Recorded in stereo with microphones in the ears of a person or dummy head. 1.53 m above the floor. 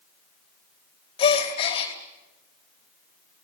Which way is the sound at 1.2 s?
30° left (ahead or behind).